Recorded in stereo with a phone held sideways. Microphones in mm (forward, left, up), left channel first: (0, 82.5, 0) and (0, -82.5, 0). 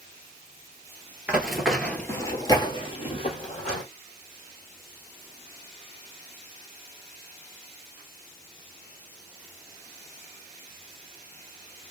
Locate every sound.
1.3 s running footsteps: 10° right (ahead or behind), 1.0 m; by 3.8 s 45° left (ahead or behind), 1.5 m